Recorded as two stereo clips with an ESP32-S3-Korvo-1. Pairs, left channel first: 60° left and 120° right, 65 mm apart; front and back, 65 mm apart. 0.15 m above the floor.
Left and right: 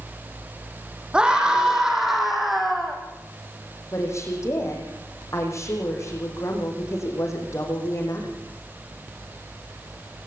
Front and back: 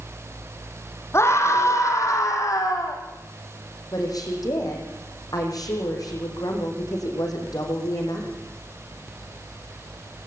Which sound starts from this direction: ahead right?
A scream, at 1.1 s.